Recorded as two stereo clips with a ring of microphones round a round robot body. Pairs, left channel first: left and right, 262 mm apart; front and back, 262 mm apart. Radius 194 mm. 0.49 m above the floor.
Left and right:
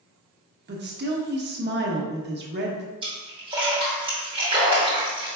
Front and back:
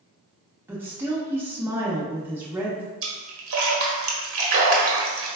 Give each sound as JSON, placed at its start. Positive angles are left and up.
{"t": 0.7, "sound": "a woman speaking", "azimuth_deg": -100, "distance_m": 0.9}
{"t": 3.0, "sound": "a splash", "azimuth_deg": -160, "distance_m": 1.0}